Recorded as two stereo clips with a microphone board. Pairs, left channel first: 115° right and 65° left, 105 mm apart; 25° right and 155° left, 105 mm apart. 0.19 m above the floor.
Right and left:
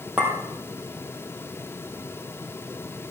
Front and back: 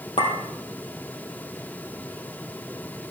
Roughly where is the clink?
Ahead.